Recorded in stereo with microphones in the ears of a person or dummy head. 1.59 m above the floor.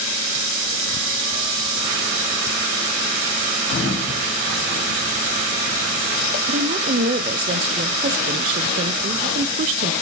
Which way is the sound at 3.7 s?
35° left (ahead or behind).